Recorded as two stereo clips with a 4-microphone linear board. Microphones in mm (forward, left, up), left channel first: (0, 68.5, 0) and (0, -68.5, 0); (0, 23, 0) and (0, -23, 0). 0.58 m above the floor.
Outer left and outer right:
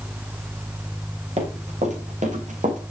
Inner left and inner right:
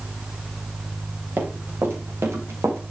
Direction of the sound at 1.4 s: 50° right (ahead or behind).